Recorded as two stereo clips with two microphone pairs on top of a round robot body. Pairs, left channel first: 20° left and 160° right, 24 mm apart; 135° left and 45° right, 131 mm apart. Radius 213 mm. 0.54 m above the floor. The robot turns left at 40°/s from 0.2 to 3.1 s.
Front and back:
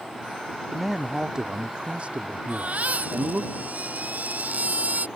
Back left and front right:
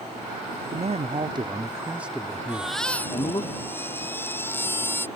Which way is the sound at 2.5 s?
125° right.